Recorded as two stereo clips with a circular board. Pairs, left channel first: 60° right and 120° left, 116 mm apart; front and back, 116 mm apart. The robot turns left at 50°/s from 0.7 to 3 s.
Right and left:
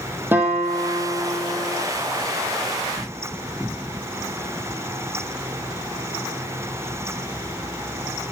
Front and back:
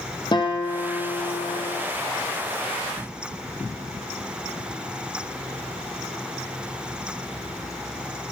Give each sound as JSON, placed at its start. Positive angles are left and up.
{"t": 0.3, "sound": "a guitar", "azimuth_deg": 50, "distance_m": 1.8}